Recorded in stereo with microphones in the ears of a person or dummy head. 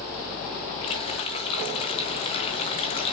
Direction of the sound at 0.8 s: 35° left (ahead or behind).